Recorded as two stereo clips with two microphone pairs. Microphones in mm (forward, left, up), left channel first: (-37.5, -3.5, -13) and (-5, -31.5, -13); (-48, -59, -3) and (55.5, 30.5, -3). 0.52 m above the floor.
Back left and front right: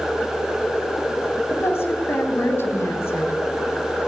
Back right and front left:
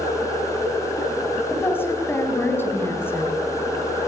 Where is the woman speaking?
150° left, 4 m.